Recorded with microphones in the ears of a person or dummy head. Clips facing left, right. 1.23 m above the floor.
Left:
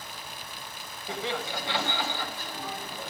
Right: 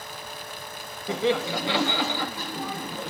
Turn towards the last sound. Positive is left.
turn(degrees=-55)  # may be behind; listen again after turning